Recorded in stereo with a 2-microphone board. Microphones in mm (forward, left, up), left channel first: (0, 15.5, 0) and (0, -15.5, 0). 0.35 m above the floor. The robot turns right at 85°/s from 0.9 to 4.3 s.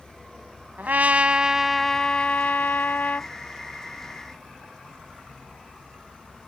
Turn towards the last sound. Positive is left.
turn(degrees=-145)